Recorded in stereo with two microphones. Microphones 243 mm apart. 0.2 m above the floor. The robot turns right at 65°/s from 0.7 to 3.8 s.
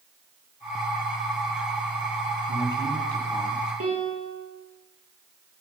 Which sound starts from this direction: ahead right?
A man speaking, at 2.5 s.